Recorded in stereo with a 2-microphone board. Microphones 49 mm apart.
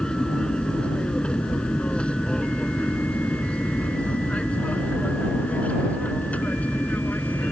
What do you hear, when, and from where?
0.0 s an aircraft: 15° left (ahead or behind); by 7.5 s 30° left (ahead or behind)